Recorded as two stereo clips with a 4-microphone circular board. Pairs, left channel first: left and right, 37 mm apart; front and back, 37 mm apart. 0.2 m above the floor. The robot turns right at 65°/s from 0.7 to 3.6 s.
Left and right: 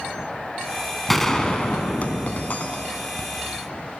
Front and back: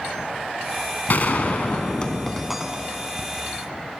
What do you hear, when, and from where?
1.1 s a gunshot: straight ahead, 0.7 m; by 3.3 s 145° left, 0.7 m